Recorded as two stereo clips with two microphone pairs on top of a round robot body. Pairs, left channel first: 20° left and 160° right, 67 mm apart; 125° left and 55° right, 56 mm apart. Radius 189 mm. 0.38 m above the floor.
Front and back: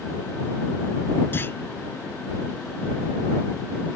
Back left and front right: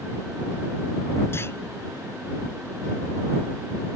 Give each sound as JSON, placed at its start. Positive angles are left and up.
{"t": 1.3, "sound": "a clunk", "azimuth_deg": 80}